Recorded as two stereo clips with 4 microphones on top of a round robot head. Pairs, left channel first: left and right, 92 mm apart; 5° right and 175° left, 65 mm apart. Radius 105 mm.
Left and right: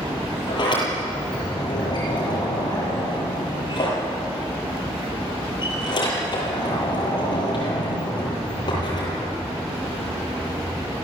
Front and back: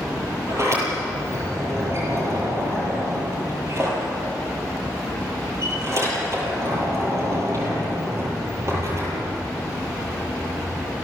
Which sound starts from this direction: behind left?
A sliding door, at 0.5 s.